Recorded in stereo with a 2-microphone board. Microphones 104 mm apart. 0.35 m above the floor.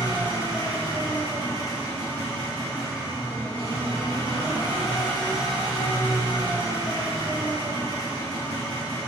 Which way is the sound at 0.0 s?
45° left (ahead or behind).